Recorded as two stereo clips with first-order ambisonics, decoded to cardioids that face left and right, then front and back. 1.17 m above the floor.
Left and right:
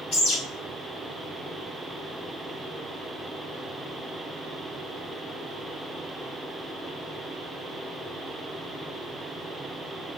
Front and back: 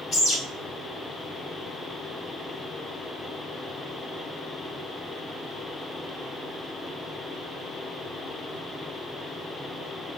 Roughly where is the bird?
Ahead left.